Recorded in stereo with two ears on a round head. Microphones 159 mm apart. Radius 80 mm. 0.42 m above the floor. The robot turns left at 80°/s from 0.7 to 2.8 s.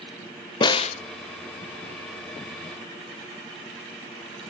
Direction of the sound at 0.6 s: 25° left (ahead or behind).